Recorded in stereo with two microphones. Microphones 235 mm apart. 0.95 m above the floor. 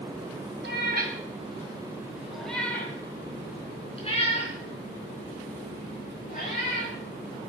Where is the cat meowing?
55° right (ahead or behind), 2.5 m; by 6.9 s 40° left (ahead or behind), 7.5 m.